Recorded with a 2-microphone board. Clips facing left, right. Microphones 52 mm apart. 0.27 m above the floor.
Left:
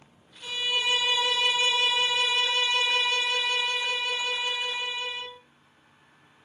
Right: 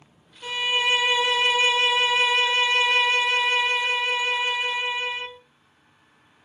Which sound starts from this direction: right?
A violin, at 0.4 s.